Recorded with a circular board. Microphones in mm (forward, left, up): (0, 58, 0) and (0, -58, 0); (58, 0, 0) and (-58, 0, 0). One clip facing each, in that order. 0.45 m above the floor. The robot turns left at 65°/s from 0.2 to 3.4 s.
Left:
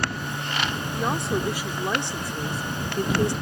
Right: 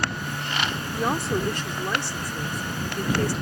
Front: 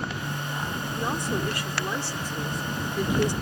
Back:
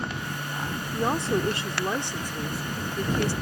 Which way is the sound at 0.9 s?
155° right.